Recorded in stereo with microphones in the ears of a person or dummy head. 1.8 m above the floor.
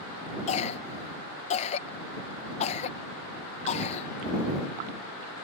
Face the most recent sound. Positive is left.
turn(degrees=35)  # may be behind; listen again after turning